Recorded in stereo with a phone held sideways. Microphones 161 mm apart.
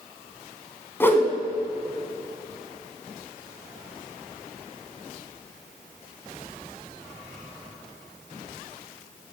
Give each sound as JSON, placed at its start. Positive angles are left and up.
{"t": 1.0, "sound": "a whoosh", "side_deg": 15, "distance_m": 1.4}